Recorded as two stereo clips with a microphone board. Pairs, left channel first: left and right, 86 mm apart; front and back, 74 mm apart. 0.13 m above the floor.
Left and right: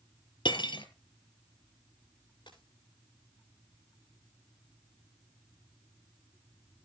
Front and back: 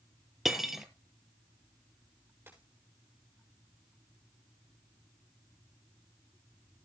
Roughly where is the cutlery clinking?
Left.